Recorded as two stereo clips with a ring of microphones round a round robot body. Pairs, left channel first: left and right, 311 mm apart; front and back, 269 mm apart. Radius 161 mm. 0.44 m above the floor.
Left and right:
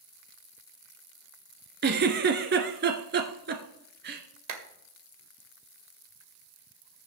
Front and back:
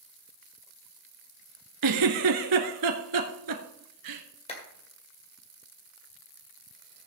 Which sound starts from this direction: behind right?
A giggle, at 1.8 s.